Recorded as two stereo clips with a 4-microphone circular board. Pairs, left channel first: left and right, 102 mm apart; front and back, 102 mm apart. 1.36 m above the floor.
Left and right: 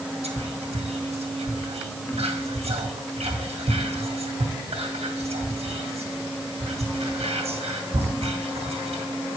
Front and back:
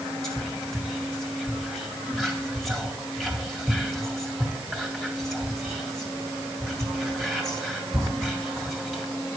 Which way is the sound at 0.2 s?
85° right.